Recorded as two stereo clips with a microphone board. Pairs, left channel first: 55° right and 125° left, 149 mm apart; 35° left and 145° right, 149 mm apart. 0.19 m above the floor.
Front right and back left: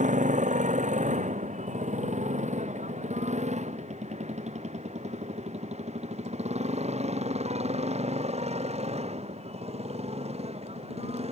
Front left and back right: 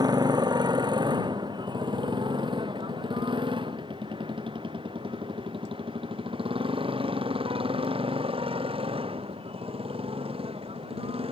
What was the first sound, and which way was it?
A motorcycle, 155° left.